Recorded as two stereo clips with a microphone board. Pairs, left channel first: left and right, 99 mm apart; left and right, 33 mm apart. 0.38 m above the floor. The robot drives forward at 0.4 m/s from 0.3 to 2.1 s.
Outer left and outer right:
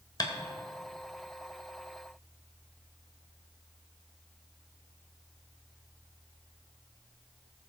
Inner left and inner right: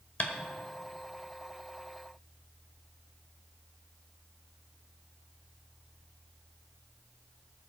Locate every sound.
0.2 s tapping: 45° left (ahead or behind), 1.4 m